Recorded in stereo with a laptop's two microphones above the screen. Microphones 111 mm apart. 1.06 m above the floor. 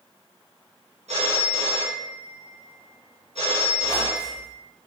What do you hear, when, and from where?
1.1 s a phone ringing: 75° right (ahead or behind), 0.7 m
3.8 s a squeak: 30° left (ahead or behind), 0.6 m